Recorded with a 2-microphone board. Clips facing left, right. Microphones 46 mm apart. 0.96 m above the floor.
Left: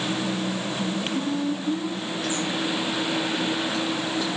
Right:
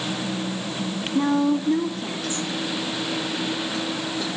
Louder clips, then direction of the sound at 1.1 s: Right 11 dB; 70° right (ahead or behind).